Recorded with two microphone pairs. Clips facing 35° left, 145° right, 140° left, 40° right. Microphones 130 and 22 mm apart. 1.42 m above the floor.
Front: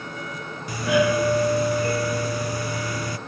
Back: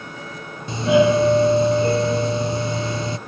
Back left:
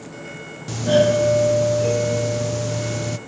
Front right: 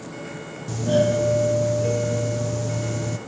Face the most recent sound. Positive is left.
turn(degrees=175)